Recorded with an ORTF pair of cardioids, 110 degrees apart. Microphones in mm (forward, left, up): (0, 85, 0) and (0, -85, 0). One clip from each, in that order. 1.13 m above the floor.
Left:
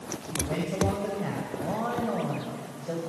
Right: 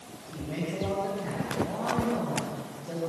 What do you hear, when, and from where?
0.3 s a man speaking: 40° left, 5.5 m